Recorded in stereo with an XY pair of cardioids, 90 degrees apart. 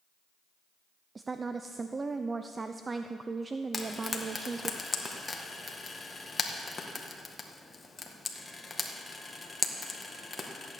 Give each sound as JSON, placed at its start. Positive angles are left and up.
{"t": 1.1, "sound": "a woman speaking", "azimuth_deg": -30, "distance_m": 0.6}
{"t": 3.7, "sound": "frying", "azimuth_deg": 25, "distance_m": 1.8}